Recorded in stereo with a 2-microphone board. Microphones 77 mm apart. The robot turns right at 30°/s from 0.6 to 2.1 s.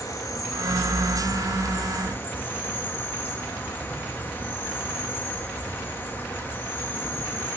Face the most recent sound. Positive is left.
turn(degrees=140)